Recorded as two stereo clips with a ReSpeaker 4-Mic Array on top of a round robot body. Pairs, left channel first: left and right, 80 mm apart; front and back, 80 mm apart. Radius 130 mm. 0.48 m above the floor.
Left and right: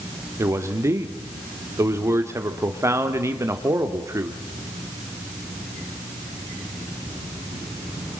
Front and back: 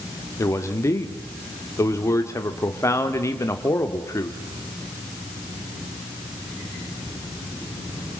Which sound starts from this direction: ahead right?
A man speaking, at 0.4 s.